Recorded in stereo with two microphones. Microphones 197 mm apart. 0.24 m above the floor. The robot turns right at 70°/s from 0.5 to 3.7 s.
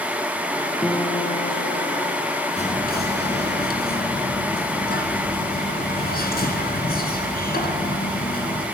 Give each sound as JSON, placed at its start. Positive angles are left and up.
{"t": 0.8, "sound": "a guitar", "azimuth_deg": 5, "distance_m": 1.2}
{"t": 2.6, "sound": "whispering", "azimuth_deg": 40, "distance_m": 2.5}